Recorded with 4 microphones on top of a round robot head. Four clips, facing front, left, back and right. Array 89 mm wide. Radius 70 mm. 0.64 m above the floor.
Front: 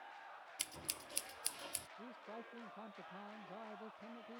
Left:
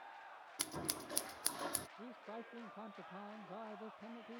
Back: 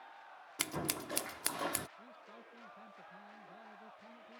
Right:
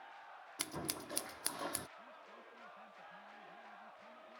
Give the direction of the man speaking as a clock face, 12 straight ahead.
10 o'clock.